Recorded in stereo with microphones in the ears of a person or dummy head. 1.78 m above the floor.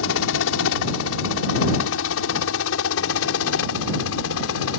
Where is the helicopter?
75° left (ahead or behind); by 4.8 s 80° left.